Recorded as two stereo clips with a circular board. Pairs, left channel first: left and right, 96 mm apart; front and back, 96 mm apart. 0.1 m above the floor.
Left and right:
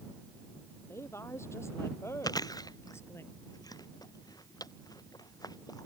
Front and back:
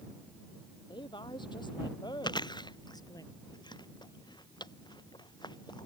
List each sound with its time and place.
0.9 s a woman speaking: 30° left; by 3.2 s 35° left
2.2 s chewing: 40° left